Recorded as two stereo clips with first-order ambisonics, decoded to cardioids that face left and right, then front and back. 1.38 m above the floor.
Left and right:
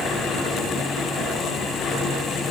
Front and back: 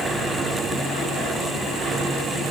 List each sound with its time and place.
Only background noise.